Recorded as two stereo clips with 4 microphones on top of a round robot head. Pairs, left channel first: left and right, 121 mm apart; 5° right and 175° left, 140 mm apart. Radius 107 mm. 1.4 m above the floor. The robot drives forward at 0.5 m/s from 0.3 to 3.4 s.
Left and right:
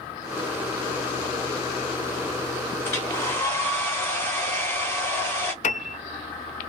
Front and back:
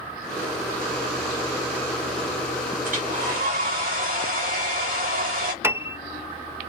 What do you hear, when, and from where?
2.9 s a hair dryer: 160° left, 2.5 m
5.6 s a piano: 100° left, 0.6 m